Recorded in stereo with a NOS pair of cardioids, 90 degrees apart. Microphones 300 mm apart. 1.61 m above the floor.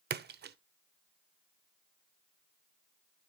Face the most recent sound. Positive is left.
turn(degrees=-35)